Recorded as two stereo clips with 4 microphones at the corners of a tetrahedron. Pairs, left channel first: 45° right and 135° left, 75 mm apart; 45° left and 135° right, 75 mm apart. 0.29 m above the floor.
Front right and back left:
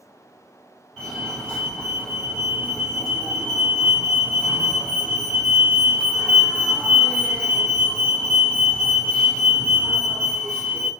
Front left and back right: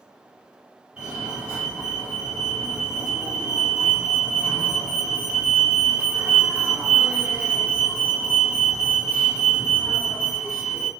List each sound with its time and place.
1.0 s a fire alarm: 90° right, 2.0 m